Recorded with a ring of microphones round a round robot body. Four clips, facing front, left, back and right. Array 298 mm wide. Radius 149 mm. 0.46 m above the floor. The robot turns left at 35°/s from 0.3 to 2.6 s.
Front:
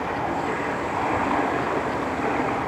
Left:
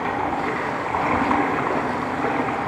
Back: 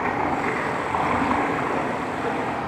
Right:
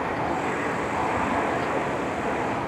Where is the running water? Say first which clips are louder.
Left 3 dB, back 2 dB; 145° left, 4 m; by 2.7 s 65° left, 4 m.